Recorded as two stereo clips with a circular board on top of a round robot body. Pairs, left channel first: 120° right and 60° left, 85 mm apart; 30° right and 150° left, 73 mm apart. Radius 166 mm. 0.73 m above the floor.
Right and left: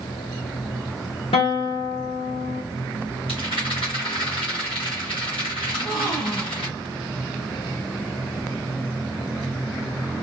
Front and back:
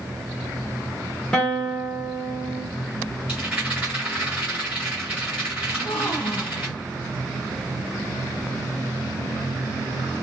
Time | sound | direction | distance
1.3 | a guitar | 110° right | 1.0 m
3.3 | a rattle | 135° right | 1.7 m
5.7 | a gasp | 55° right | 0.8 m